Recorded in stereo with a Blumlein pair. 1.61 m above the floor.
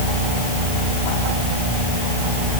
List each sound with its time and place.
Only background noise.